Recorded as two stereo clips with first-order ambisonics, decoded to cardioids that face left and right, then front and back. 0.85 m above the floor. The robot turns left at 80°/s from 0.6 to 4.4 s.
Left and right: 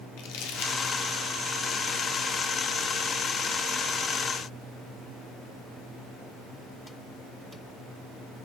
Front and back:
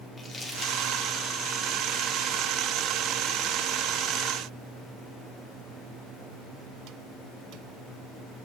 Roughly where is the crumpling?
Left.